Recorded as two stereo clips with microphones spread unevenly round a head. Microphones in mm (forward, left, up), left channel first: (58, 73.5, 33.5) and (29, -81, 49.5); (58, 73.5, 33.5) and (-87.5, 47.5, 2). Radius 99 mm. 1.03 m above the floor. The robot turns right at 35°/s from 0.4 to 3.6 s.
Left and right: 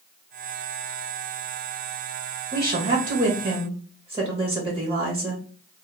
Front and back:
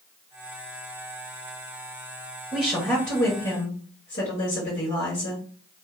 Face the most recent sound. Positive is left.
turn(degrees=-25)